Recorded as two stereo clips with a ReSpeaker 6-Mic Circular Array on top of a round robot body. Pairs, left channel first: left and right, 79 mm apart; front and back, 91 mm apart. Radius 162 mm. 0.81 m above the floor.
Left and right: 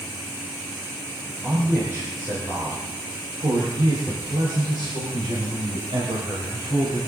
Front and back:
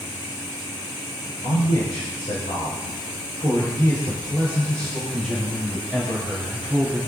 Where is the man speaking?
25° right, 5 m; by 7.0 s 105° right, 7 m.